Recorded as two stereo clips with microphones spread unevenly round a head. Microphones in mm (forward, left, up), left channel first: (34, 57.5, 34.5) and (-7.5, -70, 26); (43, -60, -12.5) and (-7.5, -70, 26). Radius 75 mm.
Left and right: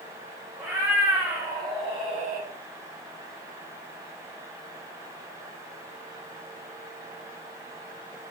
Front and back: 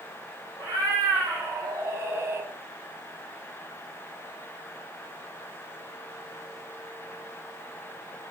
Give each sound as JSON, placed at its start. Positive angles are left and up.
{"t": 0.6, "sound": "a cat meowing", "azimuth_deg": 175, "distance_m": 1.9}